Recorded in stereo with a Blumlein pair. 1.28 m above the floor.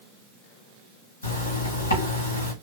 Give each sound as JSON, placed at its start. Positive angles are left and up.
{"t": 1.2, "sound": "a zipper", "azimuth_deg": 70, "distance_m": 4.0}